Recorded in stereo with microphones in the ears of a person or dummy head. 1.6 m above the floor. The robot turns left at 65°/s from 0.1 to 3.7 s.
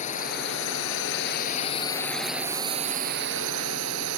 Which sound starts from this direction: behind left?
A drone, at 0.0 s.